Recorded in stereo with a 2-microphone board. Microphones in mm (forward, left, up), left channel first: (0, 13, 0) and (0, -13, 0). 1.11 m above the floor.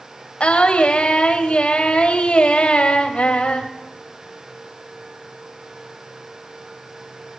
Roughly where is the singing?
Left.